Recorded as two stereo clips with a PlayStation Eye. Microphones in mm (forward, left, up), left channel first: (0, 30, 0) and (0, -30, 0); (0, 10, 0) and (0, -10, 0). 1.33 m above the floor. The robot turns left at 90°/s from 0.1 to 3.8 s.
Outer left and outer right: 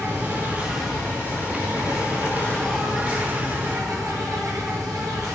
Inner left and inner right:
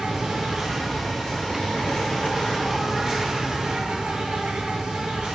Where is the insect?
115° right, 2.5 m; by 5.3 s 85° right, 2.5 m.